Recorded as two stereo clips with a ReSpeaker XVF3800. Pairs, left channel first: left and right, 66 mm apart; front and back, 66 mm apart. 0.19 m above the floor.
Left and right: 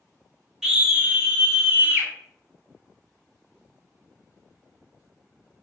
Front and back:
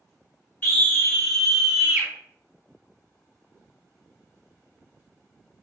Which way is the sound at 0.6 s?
15° right.